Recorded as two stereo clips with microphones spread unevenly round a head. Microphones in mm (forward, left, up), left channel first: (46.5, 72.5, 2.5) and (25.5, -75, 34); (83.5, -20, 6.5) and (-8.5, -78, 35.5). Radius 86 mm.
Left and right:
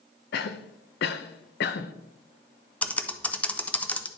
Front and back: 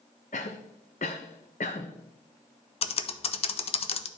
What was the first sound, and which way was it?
A cough, 80° left.